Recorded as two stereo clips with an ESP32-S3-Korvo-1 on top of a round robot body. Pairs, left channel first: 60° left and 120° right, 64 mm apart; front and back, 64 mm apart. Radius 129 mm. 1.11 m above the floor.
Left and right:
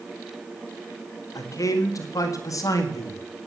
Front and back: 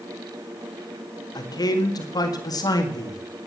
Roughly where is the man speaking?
Ahead left.